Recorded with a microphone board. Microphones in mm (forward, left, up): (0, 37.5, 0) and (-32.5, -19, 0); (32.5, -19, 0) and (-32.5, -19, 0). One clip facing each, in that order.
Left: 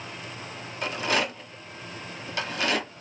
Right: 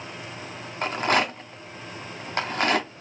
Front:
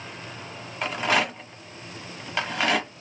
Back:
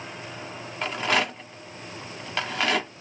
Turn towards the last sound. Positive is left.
turn(degrees=-85)